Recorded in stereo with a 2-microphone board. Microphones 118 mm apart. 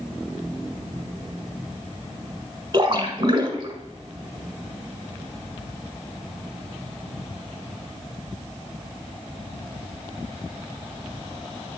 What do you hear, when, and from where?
2.7 s a splash: 35° right (ahead or behind), 1.3 m